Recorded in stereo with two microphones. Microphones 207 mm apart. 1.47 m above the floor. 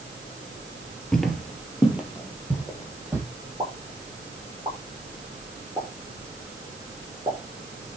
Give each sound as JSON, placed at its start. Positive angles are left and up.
{"t": 1.1, "sound": "footsteps", "side_deg": 0, "distance_m": 1.8}
{"t": 3.6, "sound": "a pop", "side_deg": -25, "distance_m": 4.5}